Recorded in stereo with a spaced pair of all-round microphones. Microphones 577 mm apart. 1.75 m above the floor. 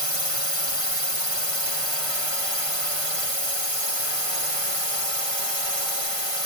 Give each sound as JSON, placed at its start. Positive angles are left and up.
{"t": 0.0, "sound": "a drone", "side_deg": 65}